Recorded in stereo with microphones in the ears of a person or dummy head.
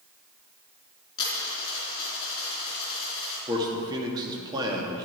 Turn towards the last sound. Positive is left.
turn(degrees=-20)  # may be behind; listen again after turning